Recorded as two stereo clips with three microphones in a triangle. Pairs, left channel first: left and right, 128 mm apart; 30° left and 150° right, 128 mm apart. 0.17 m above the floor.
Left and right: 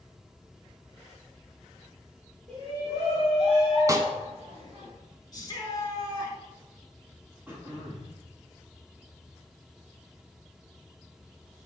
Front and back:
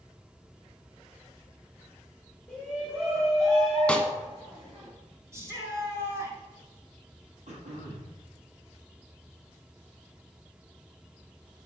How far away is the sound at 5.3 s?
About 2.5 m.